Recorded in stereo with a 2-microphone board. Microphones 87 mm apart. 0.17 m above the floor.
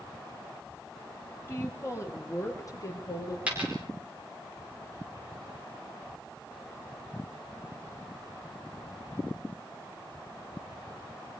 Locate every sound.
1.5 s a woman speaking: 25° left (ahead or behind), 4 m; by 3.4 s 45° left (ahead or behind), 4 m
3.5 s a dropped coin: 15° right (ahead or behind), 6.5 m